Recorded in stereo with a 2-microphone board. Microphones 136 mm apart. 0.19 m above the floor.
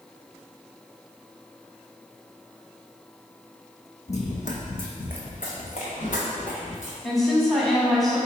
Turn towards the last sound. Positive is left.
turn(degrees=0)  # may be behind; listen again after turning